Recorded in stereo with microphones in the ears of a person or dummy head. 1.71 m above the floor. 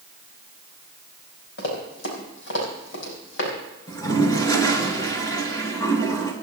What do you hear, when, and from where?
1.6 s running footsteps: 70° left (ahead or behind), 5 m
3.9 s a toilet flushing: 20° left (ahead or behind), 2.5 m